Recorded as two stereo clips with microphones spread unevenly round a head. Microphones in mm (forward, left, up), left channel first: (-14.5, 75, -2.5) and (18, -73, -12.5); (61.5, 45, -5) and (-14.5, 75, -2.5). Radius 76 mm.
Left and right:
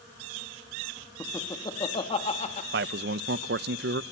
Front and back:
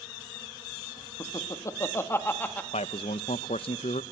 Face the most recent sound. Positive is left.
turn(degrees=-55)